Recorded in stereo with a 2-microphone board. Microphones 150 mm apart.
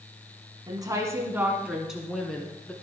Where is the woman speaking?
30° right (ahead or behind), 1.9 m; by 2.7 s 10° left (ahead or behind), 3 m.